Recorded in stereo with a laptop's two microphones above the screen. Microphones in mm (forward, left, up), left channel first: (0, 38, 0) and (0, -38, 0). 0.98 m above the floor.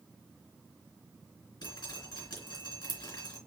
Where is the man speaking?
I don't hear a man speaking.